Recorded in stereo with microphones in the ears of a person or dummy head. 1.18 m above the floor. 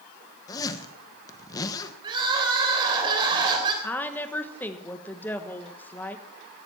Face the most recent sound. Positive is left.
turn(degrees=5)  # may be behind; listen again after turning